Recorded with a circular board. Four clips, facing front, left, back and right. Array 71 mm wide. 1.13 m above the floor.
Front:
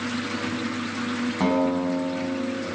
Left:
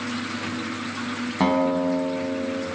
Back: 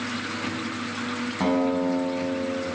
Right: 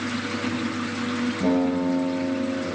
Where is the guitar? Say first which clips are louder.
Left 2 dB, even; 85° left, 7 m.